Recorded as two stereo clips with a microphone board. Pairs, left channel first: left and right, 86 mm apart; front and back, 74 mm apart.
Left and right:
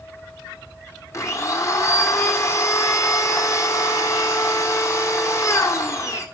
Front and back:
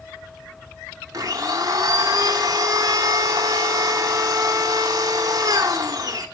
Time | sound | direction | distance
1.1 | a blender | 145° left | 1.6 m